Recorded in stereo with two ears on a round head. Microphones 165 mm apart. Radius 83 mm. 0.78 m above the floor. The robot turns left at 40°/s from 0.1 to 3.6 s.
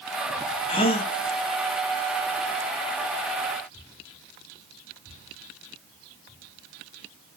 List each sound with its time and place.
0.7 s a gasp: 30° left (ahead or behind), 0.8 m; by 1.1 s 35° left (ahead or behind), 0.8 m